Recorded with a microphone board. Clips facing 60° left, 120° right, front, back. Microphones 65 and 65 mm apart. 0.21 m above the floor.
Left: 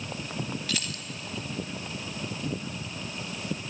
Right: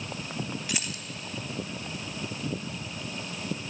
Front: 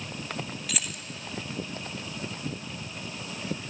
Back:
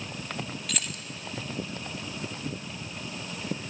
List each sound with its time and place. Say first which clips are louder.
0.7 s keys jangling: left 1 dB, even; 80° right, 0.7 m